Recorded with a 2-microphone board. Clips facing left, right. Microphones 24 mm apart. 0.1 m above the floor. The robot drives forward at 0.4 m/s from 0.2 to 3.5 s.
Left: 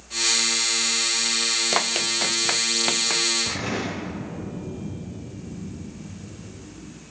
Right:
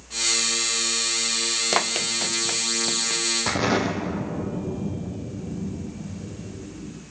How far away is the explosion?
About 4.5 m.